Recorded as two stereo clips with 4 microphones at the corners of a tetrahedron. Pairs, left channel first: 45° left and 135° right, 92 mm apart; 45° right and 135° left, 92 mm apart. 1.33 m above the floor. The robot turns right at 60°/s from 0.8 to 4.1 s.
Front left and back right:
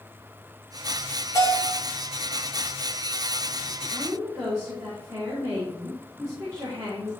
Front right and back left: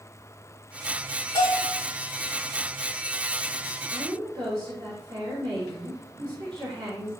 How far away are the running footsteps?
I don't hear running footsteps.